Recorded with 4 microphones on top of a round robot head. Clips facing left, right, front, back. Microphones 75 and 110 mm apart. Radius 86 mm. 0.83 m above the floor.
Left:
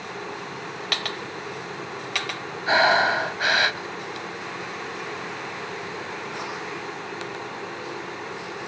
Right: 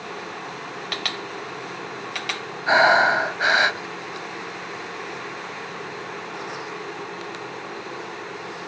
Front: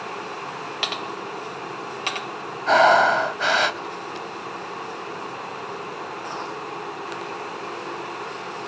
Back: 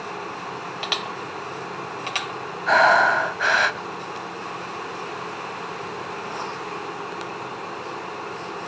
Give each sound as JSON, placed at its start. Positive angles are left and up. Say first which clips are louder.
{"t": 2.7, "sound": "breathing", "louder": "right 3 dB, front 1 dB", "azimuth_deg": -45}